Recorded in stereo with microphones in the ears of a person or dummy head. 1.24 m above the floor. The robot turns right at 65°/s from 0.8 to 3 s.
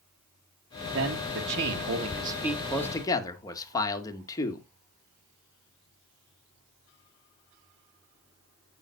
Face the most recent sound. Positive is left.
turn(degrees=25)